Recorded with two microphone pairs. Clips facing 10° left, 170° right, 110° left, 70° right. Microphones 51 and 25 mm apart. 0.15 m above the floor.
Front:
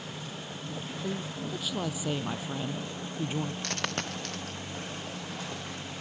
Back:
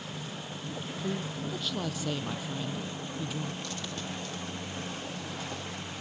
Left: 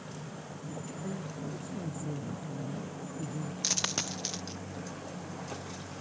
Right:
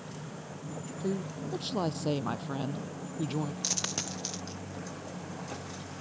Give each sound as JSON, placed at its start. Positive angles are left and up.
{"t": 1.0, "sound": "a woman speaking", "azimuth_deg": -80}
{"t": 3.6, "sound": "a dropped coin", "azimuth_deg": 35}